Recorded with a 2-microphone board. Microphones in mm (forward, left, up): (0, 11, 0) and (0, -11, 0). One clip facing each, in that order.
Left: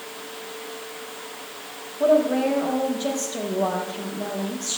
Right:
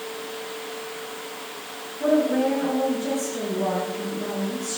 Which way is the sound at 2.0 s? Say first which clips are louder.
Left 2 dB; 65° left (ahead or behind).